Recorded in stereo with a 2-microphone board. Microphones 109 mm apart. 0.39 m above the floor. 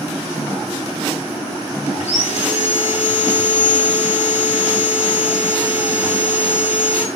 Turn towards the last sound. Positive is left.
turn(degrees=85)